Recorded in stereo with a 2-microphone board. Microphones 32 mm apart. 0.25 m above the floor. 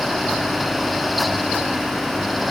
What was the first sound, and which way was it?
Only background noise.